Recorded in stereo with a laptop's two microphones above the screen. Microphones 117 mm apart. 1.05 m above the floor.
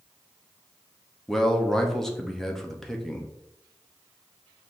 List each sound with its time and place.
1.3 s a man speaking: 5° left (ahead or behind), 0.8 m